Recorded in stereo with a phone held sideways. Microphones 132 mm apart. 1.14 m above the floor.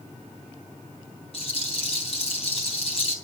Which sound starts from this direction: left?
A rattle, at 1.3 s.